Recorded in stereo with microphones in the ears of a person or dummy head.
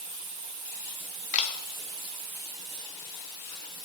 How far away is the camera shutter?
About 0.7 m.